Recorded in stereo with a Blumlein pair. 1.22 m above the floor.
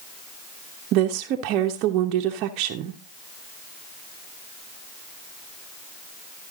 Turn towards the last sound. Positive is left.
turn(degrees=-40)